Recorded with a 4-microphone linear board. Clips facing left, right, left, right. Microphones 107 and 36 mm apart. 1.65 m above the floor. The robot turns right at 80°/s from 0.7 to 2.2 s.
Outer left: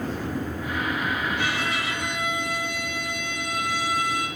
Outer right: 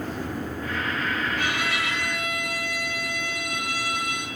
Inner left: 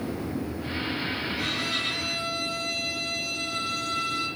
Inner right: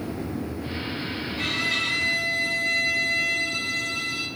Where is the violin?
135° right, 6.5 m; by 4.3 s 65° right, 6.5 m.